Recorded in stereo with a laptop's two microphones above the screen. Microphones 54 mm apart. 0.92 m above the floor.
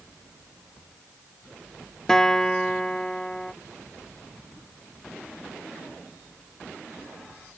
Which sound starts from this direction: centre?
A guitar, at 2.1 s.